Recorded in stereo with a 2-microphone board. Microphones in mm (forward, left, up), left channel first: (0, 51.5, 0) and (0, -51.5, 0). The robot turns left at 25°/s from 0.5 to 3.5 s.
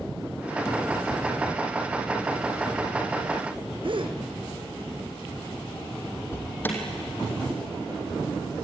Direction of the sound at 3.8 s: 55° right (ahead or behind).